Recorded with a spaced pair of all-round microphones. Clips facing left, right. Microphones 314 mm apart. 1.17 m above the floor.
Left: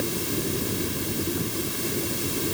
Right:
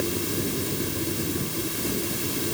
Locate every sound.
Only background noise.